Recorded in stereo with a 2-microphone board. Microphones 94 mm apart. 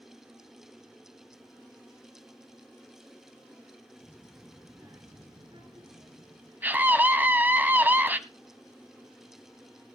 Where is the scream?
20° right (ahead or behind), 1.3 m.